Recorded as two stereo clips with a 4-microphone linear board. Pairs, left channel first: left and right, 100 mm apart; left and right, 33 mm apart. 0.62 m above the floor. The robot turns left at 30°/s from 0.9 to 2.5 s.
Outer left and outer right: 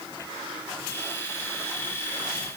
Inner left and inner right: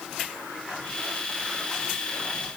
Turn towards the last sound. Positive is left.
No sound to turn to.